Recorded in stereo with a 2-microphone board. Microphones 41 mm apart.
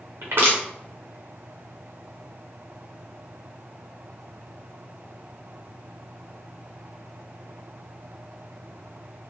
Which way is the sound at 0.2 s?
70° right (ahead or behind).